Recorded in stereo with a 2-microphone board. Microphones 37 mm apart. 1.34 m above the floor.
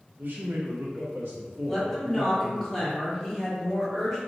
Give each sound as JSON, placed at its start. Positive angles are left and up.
{"t": 0.2, "sound": "a man speaking", "side_deg": -50, "distance_m": 0.6}
{"t": 1.7, "sound": "a woman speaking", "side_deg": 5, "distance_m": 1.2}